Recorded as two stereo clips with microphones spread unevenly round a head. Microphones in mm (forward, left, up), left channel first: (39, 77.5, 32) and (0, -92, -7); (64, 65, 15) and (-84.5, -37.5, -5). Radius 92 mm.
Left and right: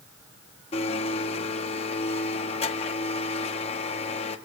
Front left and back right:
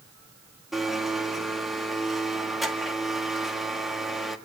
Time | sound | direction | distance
0.7 | a blender | 120° left | 1.7 m